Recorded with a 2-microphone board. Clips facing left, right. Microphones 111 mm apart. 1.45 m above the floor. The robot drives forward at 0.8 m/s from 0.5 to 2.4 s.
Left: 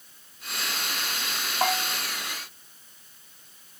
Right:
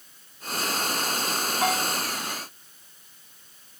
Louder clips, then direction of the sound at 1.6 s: Even; 45° left (ahead or behind).